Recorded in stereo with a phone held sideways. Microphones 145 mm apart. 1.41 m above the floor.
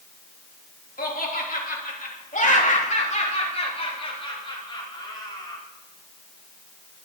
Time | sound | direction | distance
1.0 | laughter | 80° left | 3.5 m